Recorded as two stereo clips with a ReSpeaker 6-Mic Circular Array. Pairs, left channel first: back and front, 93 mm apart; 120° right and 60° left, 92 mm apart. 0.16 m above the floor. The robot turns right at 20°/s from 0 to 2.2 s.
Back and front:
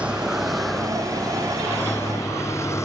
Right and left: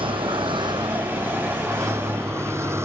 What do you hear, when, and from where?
0.0 s a vehicle: 75° left; by 2.9 s 120° left